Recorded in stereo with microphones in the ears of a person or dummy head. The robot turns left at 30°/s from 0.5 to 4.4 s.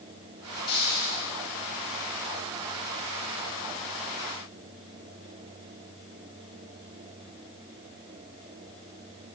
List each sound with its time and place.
0.7 s a hiss: 50° left (ahead or behind), 3 m; by 1.3 s 65° left (ahead or behind), 3 m